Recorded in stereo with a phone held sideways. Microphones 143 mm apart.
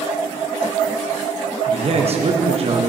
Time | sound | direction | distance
1.7 | a man speaking | 45° right (ahead or behind) | 1.0 m